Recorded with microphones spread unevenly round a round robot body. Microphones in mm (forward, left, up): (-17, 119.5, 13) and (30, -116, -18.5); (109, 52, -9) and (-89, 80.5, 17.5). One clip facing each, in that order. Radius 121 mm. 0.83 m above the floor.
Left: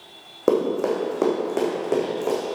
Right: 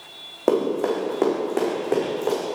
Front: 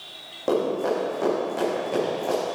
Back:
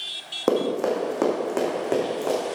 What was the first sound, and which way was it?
Running footsteps, 175° left.